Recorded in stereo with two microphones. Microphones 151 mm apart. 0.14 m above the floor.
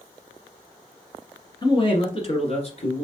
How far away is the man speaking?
About 1.4 m.